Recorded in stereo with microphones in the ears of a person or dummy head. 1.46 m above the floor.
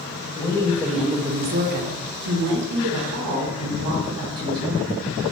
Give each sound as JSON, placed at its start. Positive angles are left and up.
{"t": 0.4, "sound": "a woman speaking", "side_deg": 20, "distance_m": 0.8}